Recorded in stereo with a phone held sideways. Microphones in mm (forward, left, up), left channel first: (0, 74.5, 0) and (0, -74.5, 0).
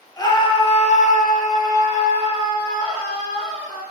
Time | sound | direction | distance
0.2 | a scream | 25° left (ahead or behind) | 0.7 m